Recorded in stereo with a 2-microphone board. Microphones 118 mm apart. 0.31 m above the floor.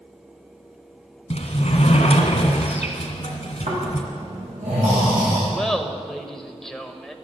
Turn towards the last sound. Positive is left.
turn(degrees=5)  # may be behind; listen again after turning